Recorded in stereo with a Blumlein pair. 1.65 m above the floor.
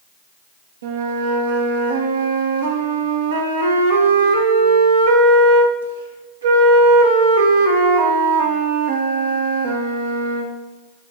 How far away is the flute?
About 1.7 m.